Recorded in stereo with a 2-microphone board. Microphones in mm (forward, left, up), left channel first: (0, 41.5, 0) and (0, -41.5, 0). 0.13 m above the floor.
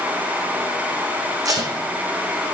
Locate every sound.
1.4 s tape being pulled: 45° right (ahead or behind), 1.6 m